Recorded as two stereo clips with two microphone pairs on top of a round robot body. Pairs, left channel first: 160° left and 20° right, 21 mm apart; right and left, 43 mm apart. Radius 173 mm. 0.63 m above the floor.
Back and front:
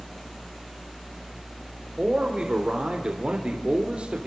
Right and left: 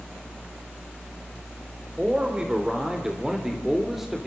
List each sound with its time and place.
2.0 s a man speaking: 20° left, 3.5 m; by 4.3 s straight ahead, 3 m